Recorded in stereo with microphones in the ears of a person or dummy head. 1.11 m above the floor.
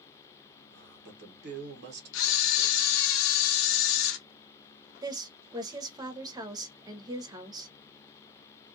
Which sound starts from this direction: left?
A camera shutter, at 2.1 s.